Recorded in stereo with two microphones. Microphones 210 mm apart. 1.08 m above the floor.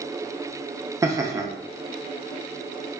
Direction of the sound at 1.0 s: 15° right (ahead or behind).